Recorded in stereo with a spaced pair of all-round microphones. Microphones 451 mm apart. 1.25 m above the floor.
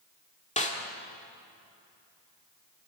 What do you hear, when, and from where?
0.6 s a snare drum: 15° left (ahead or behind), 2 m